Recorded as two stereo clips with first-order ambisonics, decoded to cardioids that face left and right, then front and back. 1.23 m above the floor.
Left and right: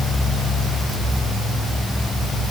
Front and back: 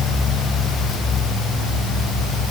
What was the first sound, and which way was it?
Only background noise.